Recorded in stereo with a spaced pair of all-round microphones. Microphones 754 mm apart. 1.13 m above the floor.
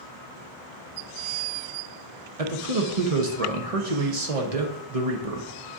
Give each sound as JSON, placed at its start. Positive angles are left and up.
{"t": 2.4, "sound": "a man speaking", "side_deg": -50, "distance_m": 0.9}